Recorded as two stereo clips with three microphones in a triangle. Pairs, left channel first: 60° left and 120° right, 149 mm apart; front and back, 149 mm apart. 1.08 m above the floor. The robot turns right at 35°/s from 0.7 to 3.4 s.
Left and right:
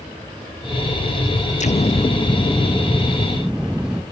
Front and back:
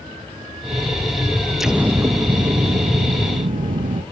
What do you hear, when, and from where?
1.6 s an explosion: 95° left, 0.6 m; by 4.0 s 155° left, 0.6 m